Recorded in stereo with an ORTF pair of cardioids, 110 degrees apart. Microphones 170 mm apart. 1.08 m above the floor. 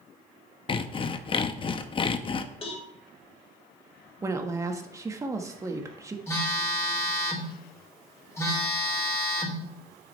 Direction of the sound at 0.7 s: 30° left.